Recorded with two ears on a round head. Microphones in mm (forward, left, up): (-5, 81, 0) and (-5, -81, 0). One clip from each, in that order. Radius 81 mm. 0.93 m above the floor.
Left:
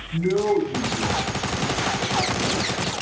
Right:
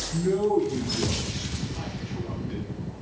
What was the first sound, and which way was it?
A man speaking, 20° left (ahead or behind).